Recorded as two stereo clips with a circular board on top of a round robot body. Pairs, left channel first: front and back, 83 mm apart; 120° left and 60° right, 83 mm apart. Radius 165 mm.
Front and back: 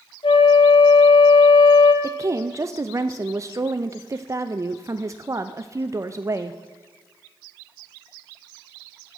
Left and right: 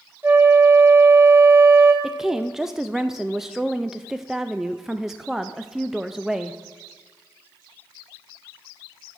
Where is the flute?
5° left, 1.2 m.